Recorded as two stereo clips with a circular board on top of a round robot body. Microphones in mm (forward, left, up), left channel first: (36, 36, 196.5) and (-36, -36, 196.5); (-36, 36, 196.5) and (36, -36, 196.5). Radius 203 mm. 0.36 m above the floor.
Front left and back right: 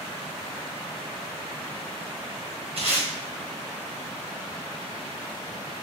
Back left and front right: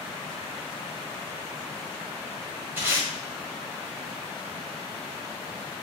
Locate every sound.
2.8 s tape being pulled: 110° right, 1.5 m